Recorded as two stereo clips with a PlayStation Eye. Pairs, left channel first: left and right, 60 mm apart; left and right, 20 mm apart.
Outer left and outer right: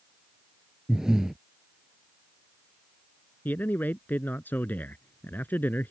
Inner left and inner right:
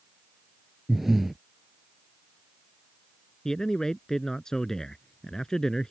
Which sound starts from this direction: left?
A man speaking, at 3.5 s.